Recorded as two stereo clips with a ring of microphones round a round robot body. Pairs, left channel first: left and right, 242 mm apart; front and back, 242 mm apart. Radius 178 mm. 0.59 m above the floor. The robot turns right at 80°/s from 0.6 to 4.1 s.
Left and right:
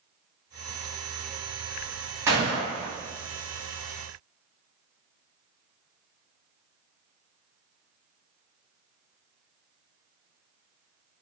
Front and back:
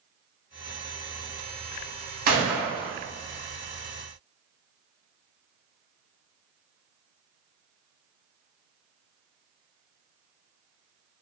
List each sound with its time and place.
2.3 s a gunshot: 165° right, 0.9 m; by 2.9 s 110° right, 0.9 m